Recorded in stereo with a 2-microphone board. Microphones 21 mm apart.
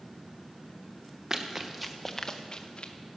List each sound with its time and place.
1.3 s running footsteps: 30° right (ahead or behind), 1.6 m; by 2.9 s 65° left (ahead or behind), 1.6 m